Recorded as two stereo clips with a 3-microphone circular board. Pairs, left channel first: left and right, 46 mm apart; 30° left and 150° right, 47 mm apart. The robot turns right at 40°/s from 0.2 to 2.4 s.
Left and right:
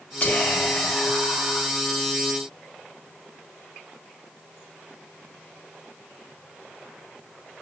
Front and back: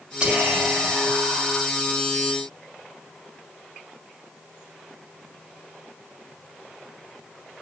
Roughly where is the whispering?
Behind left.